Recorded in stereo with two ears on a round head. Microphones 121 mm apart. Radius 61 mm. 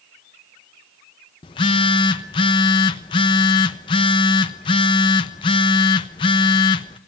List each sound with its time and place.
1.4 s a phone buzzing: 35° left (ahead or behind), 1.1 m